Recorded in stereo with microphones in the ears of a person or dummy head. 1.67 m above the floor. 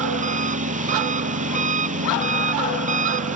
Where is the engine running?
35° right (ahead or behind).